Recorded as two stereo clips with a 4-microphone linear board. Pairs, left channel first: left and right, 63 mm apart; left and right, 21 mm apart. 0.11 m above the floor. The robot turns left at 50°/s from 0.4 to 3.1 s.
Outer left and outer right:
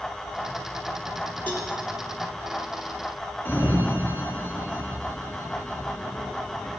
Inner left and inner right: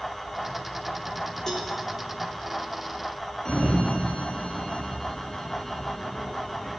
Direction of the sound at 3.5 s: 30° left (ahead or behind).